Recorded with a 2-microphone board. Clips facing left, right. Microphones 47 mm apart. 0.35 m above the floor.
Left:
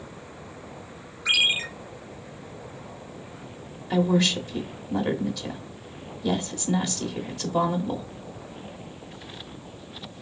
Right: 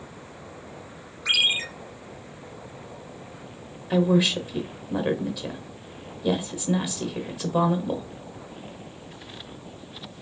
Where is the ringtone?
Centre (ahead or behind), 3.5 m.